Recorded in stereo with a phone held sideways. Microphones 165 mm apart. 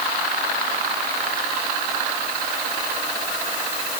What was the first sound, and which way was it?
Only background noise.